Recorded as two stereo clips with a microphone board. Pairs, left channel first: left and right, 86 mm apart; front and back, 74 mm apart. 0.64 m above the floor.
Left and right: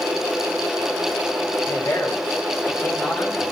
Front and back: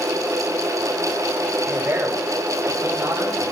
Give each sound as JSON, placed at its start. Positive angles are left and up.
{"t": 1.6, "sound": "a man speaking", "azimuth_deg": 125, "distance_m": 2.5}